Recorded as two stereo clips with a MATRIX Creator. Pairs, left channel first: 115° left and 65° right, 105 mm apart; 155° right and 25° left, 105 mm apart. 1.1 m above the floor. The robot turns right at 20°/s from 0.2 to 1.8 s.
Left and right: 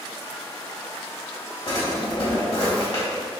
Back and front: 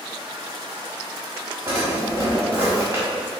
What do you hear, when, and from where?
1.7 s a drawer: 90° left, 1.4 m